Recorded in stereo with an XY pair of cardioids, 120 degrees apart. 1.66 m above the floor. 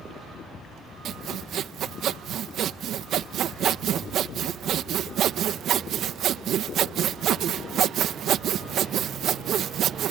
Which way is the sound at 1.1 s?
60° right.